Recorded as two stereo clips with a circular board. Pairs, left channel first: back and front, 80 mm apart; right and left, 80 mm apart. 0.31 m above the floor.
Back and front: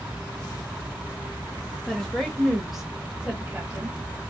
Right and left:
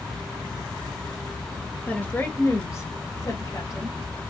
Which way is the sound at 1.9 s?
115° right.